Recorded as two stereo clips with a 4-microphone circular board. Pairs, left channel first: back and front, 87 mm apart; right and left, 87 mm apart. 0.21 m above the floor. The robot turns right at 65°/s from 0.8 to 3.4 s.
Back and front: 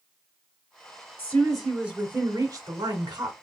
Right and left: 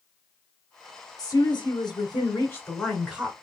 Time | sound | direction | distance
1.2 | a woman speaking | 120° right | 2 m